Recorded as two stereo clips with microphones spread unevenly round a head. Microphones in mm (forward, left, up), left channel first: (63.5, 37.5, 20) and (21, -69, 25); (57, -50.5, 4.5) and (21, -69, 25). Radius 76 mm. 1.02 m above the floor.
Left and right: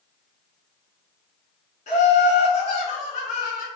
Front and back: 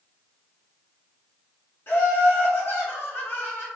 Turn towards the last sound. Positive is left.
turn(degrees=50)